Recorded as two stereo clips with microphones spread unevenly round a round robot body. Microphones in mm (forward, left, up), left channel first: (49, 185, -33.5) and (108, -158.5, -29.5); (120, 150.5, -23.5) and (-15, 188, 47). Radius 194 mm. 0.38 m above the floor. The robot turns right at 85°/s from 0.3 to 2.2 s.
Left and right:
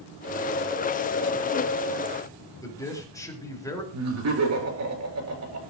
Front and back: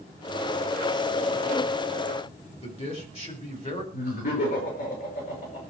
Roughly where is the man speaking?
Ahead.